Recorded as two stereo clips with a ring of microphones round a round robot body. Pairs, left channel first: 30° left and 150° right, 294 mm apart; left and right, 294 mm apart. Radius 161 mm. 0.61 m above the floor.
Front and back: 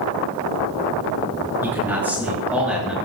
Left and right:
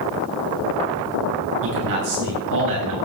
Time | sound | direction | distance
1.6 | a man speaking | 65° right | 7.5 m